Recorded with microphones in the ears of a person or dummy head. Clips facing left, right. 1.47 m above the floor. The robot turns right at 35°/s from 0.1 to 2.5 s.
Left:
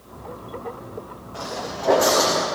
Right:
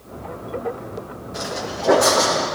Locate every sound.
1.3 s footsteps: 30° right (ahead or behind), 4 m; by 2.5 s 25° left (ahead or behind), 4 m